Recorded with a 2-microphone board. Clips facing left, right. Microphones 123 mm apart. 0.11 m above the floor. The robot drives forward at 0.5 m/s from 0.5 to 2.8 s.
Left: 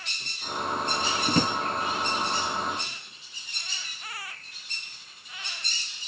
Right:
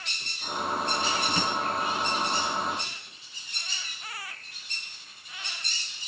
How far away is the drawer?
About 0.6 m.